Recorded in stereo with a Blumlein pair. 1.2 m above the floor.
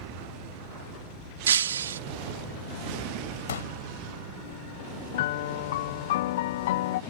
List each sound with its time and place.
1.5 s breaking glass: 65° right
3.5 s a pop: 65° left
5.1 s a piano: 55° left